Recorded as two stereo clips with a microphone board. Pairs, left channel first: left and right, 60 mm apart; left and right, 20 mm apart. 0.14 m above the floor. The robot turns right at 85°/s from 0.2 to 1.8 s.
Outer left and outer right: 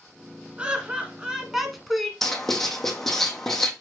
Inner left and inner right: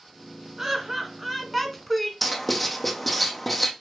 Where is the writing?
5° left (ahead or behind), 1.0 m.